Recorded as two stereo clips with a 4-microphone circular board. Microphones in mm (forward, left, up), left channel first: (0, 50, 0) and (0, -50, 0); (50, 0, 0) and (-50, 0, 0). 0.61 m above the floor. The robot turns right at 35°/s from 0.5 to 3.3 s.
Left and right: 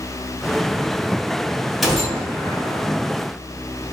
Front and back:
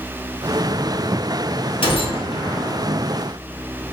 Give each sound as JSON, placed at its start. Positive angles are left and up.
{"t": 1.8, "sound": "a gunshot", "azimuth_deg": 0, "distance_m": 0.7}